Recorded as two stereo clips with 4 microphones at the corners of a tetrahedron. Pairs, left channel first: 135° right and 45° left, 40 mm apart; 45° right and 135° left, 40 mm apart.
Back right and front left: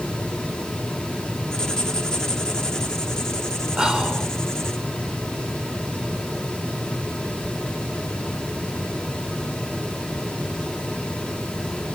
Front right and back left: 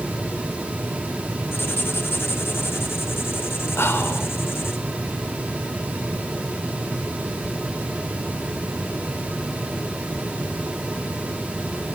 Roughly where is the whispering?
Ahead right.